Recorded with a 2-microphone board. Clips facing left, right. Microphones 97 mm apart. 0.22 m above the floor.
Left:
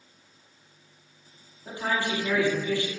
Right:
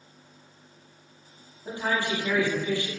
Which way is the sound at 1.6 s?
20° right (ahead or behind).